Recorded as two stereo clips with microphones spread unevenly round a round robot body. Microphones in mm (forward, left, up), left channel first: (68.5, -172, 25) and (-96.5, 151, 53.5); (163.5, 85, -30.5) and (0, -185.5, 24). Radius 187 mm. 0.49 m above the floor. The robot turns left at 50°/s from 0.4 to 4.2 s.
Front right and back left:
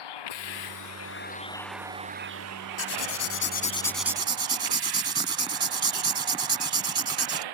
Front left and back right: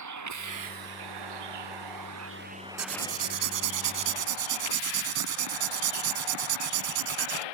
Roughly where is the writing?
Right.